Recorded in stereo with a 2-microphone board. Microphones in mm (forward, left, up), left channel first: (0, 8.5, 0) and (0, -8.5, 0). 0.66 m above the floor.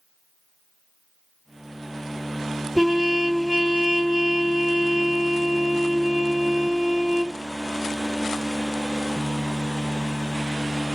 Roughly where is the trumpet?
Right.